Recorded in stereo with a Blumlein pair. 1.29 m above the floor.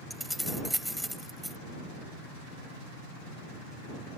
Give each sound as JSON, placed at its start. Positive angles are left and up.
{"t": 0.1, "sound": "keys jangling", "azimuth_deg": 0}